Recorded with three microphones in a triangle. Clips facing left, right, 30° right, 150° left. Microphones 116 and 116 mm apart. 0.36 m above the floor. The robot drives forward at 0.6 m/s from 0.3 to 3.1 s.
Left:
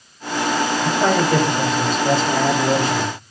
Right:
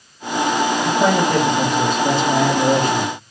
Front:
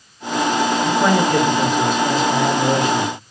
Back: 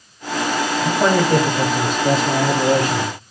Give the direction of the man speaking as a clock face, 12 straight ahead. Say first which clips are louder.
Right 1 dB, back 1 dB; 5 o'clock.